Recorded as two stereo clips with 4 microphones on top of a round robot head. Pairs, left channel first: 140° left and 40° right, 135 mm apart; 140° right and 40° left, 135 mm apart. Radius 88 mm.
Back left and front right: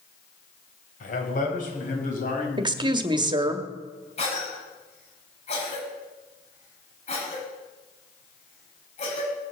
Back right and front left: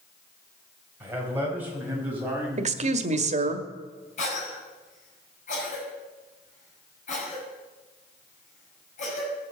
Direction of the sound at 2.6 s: 15° left.